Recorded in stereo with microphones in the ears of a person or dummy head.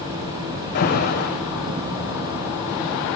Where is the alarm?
50° left (ahead or behind), 7.5 m.